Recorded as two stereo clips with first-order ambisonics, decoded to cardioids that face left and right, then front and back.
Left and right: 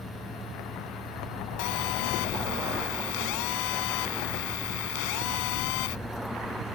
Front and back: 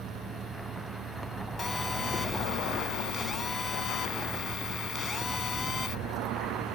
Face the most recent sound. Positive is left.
turn(degrees=75)